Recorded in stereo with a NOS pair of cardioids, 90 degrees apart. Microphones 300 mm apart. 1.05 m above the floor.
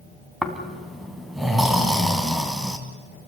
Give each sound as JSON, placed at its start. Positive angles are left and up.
{"t": 0.4, "sound": "snoring", "azimuth_deg": 0, "distance_m": 3.0}